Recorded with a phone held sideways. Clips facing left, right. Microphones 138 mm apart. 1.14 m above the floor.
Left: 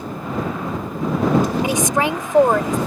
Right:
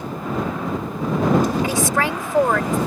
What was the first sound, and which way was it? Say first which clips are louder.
A woman speaking: left 2 dB; 20° left (ahead or behind).